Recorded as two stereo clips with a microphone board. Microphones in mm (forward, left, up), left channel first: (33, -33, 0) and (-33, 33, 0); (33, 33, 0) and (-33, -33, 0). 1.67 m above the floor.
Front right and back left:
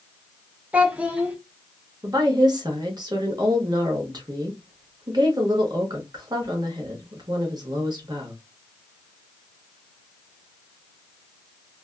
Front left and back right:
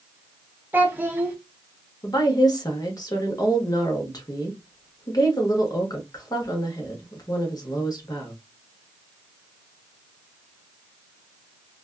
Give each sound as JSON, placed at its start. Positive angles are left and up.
{"t": 0.7, "sound": "a child speaking", "azimuth_deg": -170, "distance_m": 0.6}
{"t": 2.0, "sound": "a woman speaking", "azimuth_deg": 90, "distance_m": 1.0}